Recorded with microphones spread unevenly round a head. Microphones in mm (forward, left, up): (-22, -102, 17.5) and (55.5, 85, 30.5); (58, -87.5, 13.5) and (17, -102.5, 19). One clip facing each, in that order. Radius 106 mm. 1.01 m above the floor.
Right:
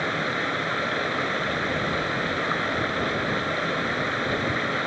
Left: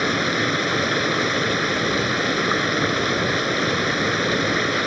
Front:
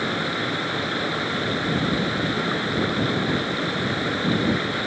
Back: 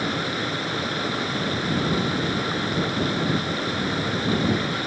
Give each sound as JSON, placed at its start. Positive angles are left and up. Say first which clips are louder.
{"t": 0.0, "sound": "running water", "louder": "left 6 dB, front 1 dB", "azimuth_deg": 110}